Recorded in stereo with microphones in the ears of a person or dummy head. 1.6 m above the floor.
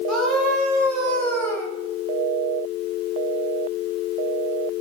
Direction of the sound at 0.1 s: 5° left (ahead or behind).